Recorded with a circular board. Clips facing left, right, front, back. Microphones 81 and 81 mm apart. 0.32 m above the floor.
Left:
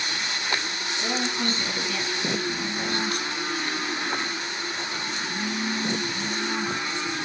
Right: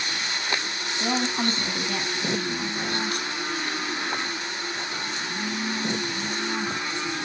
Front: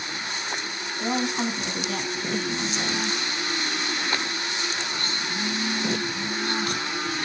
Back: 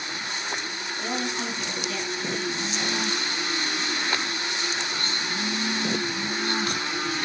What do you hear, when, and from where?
1.0 s a woman speaking: 60° right, 2.5 m; by 3.1 s 15° right, 3 m